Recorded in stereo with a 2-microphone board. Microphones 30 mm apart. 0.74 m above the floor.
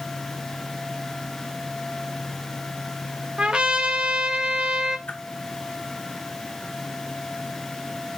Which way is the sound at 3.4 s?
35° right (ahead or behind).